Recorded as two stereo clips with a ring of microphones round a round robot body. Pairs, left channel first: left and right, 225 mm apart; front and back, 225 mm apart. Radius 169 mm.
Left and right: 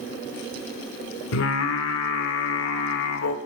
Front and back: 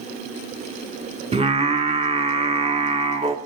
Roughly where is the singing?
Behind left.